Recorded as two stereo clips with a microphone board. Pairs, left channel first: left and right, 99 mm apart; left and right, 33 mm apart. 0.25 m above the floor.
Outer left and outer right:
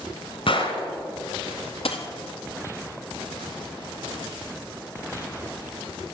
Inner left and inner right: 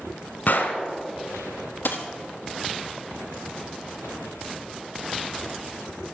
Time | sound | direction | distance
0.5 | a gunshot | 65° left (ahead or behind) | 1.3 m
1.9 | a dropped coin | 75° left (ahead or behind) | 1.0 m